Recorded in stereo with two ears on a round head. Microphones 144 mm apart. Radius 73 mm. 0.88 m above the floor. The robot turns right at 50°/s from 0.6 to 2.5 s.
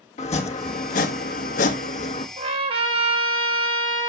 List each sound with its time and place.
0.2 s chopping: 50° left, 1.4 m; by 2.3 s 135° left, 1.4 m
2.4 s a trumpet: 40° right (ahead or behind), 1.7 m; by 4.1 s 35° right (ahead or behind), 1.7 m